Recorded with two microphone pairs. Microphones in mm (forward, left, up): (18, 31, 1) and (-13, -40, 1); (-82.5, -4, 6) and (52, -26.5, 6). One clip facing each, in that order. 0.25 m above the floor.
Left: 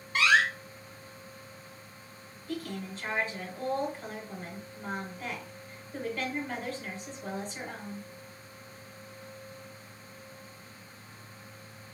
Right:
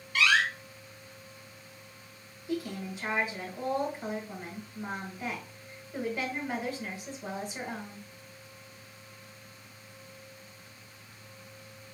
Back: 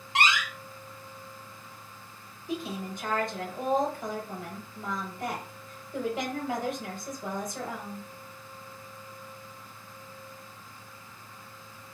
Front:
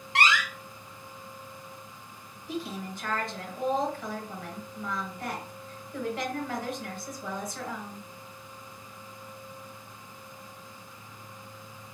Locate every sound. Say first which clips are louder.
0.1 s a door slam: left 2 dB, front 1 dB; 110° left, 1.0 m
2.5 s a woman speaking: right 3 dB, back 1 dB; 165° right, 0.9 m